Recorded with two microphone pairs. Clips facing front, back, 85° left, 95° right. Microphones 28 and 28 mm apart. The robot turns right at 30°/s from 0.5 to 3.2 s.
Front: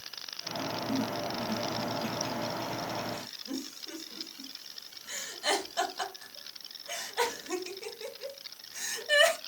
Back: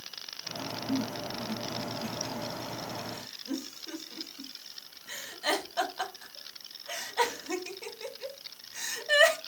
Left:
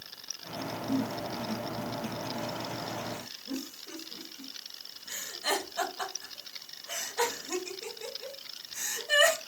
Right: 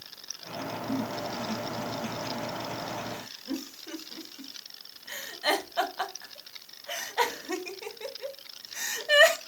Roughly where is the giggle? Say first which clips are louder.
Back 1 dB, left 1 dB; behind.